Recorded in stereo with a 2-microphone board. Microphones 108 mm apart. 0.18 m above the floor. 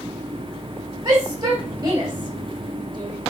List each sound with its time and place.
1.1 s a shout: 40° right (ahead or behind), 8.5 m